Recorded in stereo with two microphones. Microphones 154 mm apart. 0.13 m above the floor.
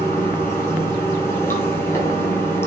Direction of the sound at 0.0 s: 15° left (ahead or behind).